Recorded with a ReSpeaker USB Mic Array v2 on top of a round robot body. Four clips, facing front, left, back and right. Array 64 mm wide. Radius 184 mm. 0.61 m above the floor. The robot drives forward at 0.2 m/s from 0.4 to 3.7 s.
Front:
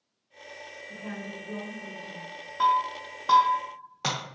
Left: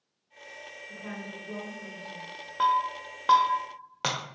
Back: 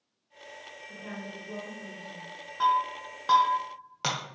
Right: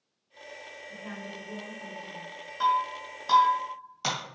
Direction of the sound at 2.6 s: 80° left.